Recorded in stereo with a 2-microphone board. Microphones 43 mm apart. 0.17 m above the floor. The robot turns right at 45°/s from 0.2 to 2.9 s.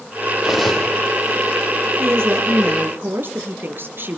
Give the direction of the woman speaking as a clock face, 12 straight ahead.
3 o'clock.